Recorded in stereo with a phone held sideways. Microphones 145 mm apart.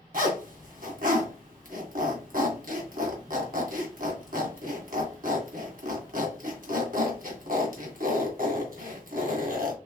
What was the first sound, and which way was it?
A zipper, 75° right (ahead or behind).